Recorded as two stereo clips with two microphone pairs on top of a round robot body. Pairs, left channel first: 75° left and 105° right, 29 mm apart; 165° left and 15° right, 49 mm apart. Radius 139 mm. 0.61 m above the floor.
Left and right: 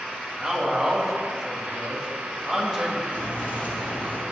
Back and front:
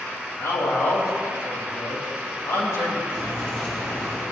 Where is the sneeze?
No sneeze in this recording.